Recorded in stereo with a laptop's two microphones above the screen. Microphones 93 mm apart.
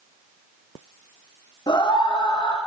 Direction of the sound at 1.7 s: 55° left (ahead or behind).